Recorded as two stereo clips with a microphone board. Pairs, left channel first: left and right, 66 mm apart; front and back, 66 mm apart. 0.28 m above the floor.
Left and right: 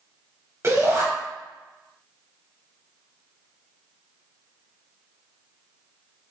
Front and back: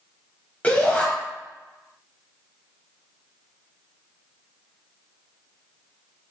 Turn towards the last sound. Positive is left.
turn(degrees=-65)